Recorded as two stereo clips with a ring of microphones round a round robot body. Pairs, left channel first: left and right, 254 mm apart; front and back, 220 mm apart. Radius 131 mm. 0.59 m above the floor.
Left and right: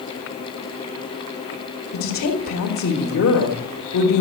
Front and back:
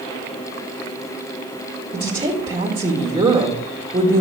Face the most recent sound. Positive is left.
turn(degrees=115)